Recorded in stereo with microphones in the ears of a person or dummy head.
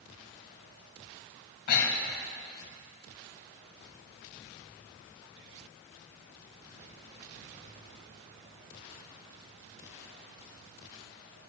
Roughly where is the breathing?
Left.